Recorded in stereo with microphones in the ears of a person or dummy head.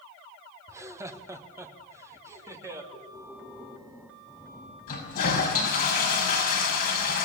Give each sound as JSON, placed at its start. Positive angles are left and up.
{"t": 0.7, "sound": "laughter", "side_deg": -15, "distance_m": 1.1}
{"t": 2.9, "sound": "breathing", "side_deg": 0, "distance_m": 3.0}
{"t": 4.9, "sound": "a toilet flushing", "side_deg": 50, "distance_m": 5.5}